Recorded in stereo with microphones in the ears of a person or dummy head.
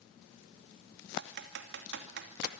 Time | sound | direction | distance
1.2 | typing on a keyboard | 65° right (ahead or behind) | 2.5 m